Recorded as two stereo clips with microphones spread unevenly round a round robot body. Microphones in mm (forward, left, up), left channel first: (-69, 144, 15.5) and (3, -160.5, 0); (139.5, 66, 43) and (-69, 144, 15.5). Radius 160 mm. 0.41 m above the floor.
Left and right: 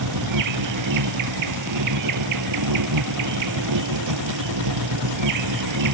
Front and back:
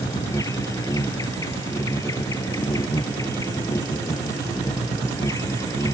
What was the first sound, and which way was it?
An insect, 100° right.